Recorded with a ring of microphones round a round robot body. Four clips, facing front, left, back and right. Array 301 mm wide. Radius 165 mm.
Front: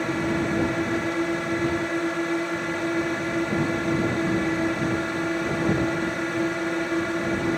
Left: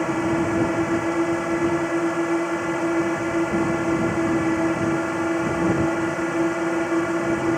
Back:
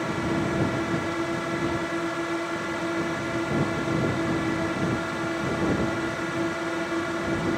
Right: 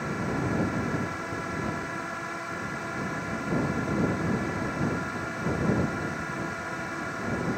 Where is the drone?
75° left.